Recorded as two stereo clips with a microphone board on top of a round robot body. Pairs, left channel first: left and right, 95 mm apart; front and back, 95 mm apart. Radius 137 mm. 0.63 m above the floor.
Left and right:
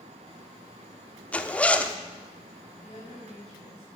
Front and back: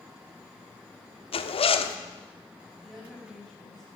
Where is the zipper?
15° left, 1.1 m.